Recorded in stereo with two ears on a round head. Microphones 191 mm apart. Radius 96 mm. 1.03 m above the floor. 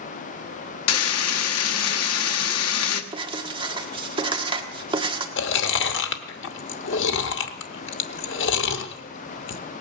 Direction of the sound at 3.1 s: 25° right (ahead or behind).